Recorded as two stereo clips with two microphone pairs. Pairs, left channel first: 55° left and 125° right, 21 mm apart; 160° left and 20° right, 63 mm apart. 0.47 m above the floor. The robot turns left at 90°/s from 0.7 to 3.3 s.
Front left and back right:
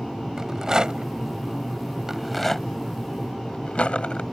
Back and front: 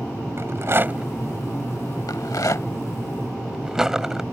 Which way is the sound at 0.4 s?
65° right.